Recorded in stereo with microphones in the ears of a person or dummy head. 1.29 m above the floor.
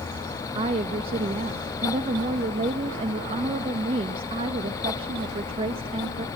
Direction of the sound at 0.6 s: 30° right (ahead or behind).